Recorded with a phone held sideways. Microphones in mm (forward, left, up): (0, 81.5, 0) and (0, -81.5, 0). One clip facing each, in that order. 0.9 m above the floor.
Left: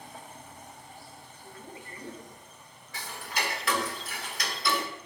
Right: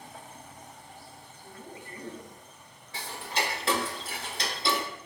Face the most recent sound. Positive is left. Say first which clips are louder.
# right 3 dB
turn(degrees=-30)  # may be behind; listen again after turning